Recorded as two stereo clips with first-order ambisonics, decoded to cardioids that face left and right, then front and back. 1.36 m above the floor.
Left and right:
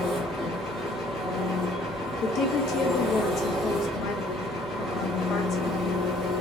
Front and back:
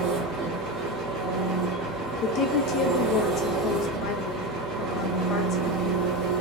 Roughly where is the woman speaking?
Ahead left.